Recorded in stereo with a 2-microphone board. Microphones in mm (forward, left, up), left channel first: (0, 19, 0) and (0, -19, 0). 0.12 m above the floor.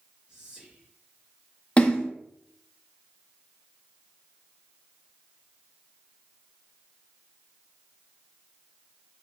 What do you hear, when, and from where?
0.3 s whispering: 25° right (ahead or behind), 1.9 m
1.8 s a splash: 30° left (ahead or behind), 0.7 m